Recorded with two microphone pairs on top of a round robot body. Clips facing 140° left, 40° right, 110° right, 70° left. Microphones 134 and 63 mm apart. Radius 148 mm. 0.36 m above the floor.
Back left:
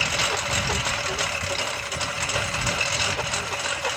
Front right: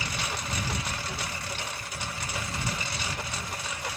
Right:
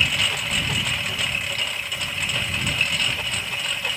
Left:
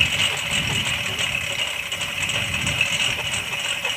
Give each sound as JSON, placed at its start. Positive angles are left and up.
{"t": 0.0, "sound": "a lawn mower", "azimuth_deg": 155}